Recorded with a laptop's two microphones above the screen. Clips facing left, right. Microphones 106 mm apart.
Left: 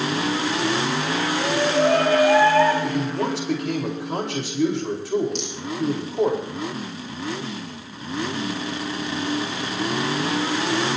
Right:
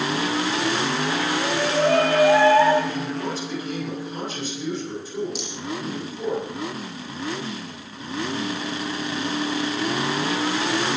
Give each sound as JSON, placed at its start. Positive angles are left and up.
{"t": 1.3, "sound": "a shout", "side_deg": 15, "distance_m": 2.5}
{"t": 2.8, "sound": "a man speaking", "side_deg": 75, "distance_m": 5.0}
{"t": 5.3, "sound": "a rattle", "side_deg": -5, "distance_m": 6.0}